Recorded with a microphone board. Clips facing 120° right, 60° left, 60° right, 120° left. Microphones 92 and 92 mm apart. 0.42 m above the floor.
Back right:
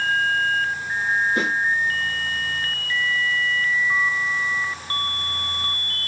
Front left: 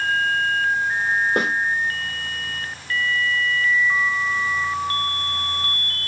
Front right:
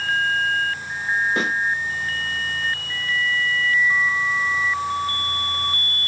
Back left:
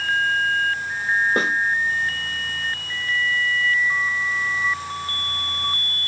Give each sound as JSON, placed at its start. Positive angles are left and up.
{"t": 1.4, "sound": "a snare drum", "azimuth_deg": 70, "distance_m": 1.6}